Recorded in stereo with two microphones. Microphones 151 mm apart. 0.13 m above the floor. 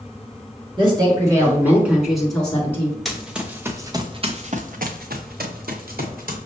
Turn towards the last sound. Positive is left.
turn(degrees=-70)  # may be behind; listen again after turning